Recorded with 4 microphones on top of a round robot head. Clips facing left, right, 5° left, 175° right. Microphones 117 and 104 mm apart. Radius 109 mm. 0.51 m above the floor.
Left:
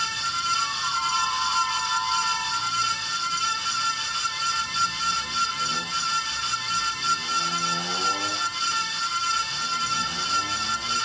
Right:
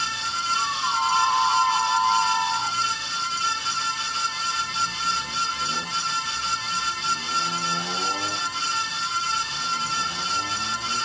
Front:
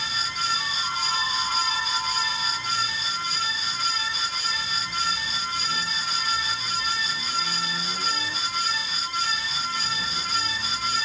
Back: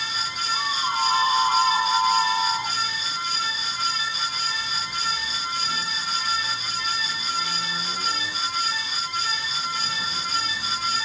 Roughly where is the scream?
Behind right.